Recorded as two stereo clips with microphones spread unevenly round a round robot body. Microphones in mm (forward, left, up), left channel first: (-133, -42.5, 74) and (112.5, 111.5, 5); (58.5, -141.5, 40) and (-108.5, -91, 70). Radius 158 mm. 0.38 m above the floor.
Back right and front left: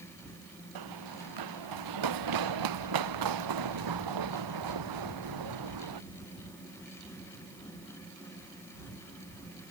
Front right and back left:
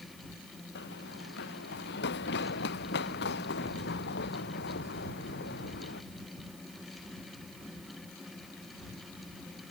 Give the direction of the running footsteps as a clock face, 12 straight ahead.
11 o'clock.